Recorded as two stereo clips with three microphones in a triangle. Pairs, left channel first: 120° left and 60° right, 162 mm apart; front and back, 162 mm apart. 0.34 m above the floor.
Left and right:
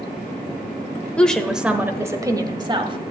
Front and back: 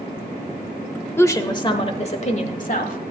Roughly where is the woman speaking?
Ahead left.